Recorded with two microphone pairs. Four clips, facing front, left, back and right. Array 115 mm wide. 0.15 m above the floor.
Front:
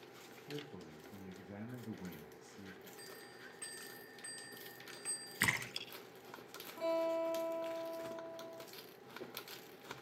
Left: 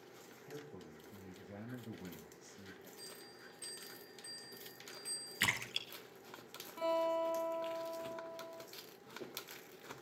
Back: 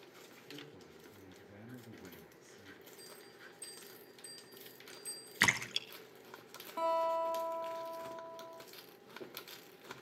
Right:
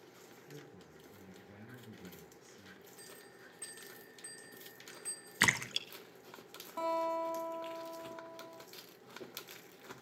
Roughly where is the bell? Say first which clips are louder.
Even, front 1 dB; ahead.